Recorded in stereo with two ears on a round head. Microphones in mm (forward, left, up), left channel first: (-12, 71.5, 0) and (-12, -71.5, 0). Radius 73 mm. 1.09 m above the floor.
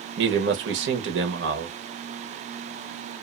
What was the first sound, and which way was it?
A man speaking, 85° right.